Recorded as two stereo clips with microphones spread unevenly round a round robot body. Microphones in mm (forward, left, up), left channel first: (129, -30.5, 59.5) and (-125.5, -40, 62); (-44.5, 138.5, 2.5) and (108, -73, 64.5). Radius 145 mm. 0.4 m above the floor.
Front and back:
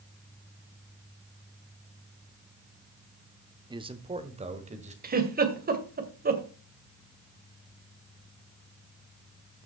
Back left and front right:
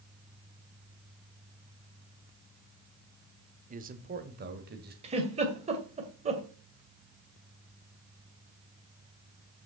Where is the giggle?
125° right, 2 m.